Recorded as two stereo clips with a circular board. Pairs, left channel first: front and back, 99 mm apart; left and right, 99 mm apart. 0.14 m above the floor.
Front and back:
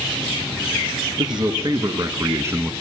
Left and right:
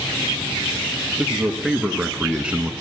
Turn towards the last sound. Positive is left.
turn(degrees=-155)